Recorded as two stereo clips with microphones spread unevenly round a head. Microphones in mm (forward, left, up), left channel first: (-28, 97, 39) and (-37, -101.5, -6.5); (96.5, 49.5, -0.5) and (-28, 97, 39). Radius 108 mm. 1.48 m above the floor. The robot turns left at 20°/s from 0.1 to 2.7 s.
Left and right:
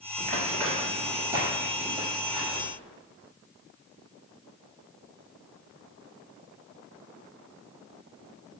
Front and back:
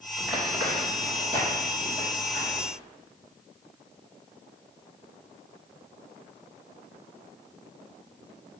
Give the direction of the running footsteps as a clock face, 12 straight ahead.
5 o'clock.